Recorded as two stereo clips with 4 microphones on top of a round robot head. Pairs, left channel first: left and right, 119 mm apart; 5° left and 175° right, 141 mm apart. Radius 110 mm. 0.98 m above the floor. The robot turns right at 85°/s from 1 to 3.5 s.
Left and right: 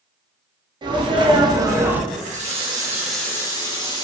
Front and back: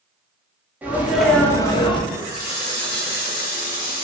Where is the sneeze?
105° right, 0.6 m; by 2.0 s 15° right, 0.6 m.